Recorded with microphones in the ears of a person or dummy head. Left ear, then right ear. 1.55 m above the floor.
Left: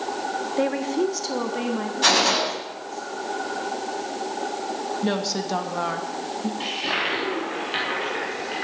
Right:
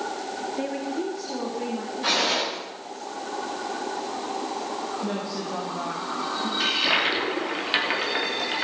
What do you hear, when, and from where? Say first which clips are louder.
0.6 s a woman speaking: left 8 dB; 40° left (ahead or behind), 1.1 m; by 3.0 s 85° left, 3 m
2.0 s a gunshot: left 4 dB; 75° left (ahead or behind), 6.5 m
5.0 s a woman speaking: left 5 dB; 75° left (ahead or behind), 2 m
6.6 s a toilet flushing: right 4 dB; 25° right (ahead or behind), 3.5 m